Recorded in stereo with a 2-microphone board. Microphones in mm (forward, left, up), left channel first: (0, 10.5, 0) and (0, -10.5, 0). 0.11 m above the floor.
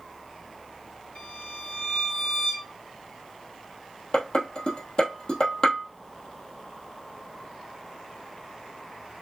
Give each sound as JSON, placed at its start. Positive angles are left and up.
{"t": 1.1, "sound": "a violin", "side_deg": 55, "distance_m": 3.5}
{"t": 4.1, "sound": "dishes clattering", "side_deg": 50, "distance_m": 2.0}